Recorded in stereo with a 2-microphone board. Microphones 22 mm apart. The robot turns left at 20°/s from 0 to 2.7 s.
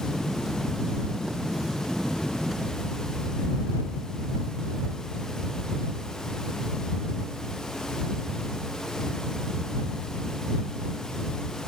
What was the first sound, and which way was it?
Only background noise.